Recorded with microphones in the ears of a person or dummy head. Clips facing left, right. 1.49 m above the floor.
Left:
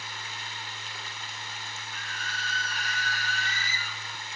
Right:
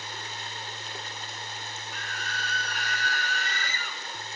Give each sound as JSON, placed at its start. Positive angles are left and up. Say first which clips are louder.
{"t": 0.0, "sound": "running water", "louder": "right 3 dB", "side_deg": -40, "distance_m": 3.5}
{"t": 1.9, "sound": "a scream", "louder": "right 3 dB", "side_deg": -60, "distance_m": 4.0}